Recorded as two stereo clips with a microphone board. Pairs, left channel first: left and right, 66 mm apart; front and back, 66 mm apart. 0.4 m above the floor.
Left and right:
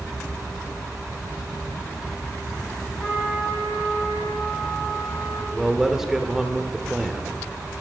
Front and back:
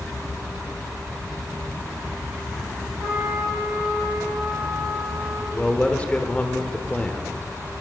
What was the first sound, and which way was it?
A trumpet, 135° left.